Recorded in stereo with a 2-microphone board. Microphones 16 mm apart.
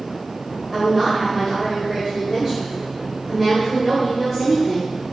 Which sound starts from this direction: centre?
A woman speaking, at 0.7 s.